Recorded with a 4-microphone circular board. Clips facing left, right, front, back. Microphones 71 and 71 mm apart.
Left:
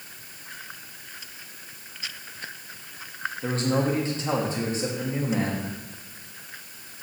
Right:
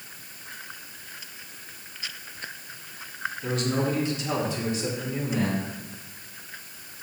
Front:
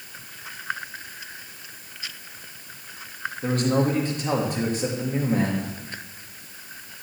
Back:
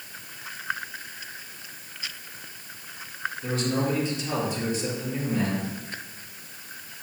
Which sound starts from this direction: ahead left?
A man speaking, at 3.4 s.